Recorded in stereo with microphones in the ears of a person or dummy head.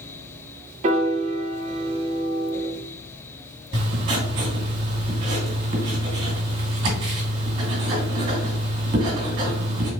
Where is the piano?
35° right (ahead or behind), 0.5 m.